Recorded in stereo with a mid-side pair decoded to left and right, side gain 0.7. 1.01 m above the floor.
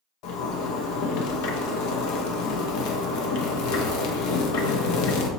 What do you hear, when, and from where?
0.2 s a zipper: 70° left, 0.7 m